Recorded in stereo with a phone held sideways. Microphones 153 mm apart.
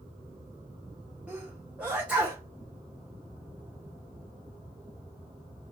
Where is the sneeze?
5° right (ahead or behind), 1.1 m.